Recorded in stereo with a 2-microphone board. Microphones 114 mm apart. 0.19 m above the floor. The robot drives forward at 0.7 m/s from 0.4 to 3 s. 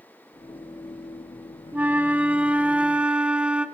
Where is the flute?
15° right (ahead or behind), 0.8 m; by 3.6 s 10° right (ahead or behind), 1.0 m.